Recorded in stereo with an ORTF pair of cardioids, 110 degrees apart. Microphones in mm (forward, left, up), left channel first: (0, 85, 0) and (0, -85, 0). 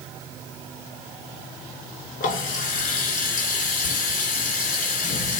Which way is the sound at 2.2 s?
55° left.